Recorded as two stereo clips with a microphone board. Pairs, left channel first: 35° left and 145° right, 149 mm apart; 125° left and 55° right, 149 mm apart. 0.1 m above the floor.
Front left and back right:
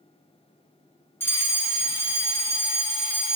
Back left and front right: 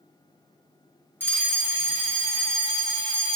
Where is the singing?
I don't hear singing.